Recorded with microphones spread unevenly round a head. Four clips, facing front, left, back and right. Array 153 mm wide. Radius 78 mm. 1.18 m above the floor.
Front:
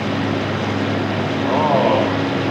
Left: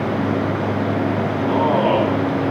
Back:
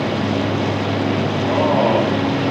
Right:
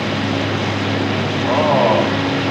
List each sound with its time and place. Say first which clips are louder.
1.5 s a man speaking: right 3 dB, front 1 dB; 40° right, 10 m